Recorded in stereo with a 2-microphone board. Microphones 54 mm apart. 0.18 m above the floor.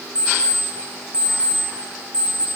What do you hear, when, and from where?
0.1 s an alarm clock: 20° right (ahead or behind), 8 m